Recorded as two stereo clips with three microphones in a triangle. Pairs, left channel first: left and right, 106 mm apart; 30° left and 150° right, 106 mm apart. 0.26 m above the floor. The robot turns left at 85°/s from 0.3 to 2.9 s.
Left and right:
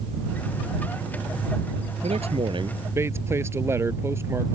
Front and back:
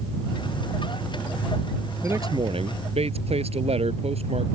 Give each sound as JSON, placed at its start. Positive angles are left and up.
{"t": 2.0, "sound": "a man speaking", "azimuth_deg": -80}